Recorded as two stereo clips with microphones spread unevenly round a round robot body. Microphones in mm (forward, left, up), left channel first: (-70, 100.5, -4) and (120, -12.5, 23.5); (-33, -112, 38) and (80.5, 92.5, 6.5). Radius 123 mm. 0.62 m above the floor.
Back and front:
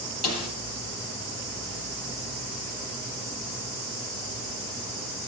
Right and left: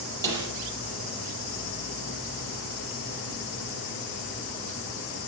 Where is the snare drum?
140° left, 6 m.